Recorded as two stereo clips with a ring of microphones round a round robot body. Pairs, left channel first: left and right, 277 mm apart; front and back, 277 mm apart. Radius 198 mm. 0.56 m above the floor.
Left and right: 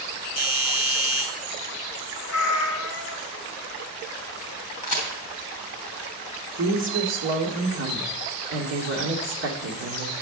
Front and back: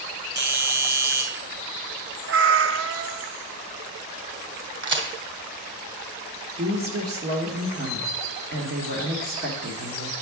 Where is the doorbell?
135° left, 2.5 m.